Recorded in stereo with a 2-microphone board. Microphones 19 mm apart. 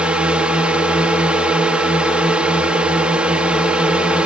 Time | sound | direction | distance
0.0 | a drone | 65° right (ahead or behind) | ?